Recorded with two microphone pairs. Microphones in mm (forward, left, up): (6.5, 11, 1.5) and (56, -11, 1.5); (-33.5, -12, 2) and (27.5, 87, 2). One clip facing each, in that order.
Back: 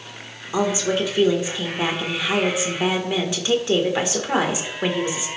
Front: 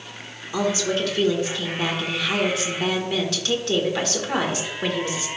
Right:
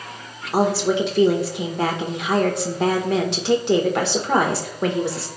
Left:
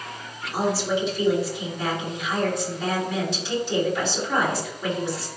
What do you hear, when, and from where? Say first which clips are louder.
0.5 s a woman speaking: back 2 dB, right 5 dB; 130° right, 1.9 m